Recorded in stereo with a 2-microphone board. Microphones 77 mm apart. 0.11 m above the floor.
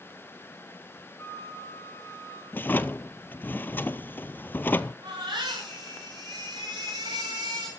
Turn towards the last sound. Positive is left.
turn(degrees=-80)